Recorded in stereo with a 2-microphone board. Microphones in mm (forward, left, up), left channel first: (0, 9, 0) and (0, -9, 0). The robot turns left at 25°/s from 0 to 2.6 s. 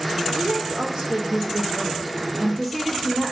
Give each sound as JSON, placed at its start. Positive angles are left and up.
{"t": 0.3, "sound": "a woman speaking", "azimuth_deg": -120, "distance_m": 1.5}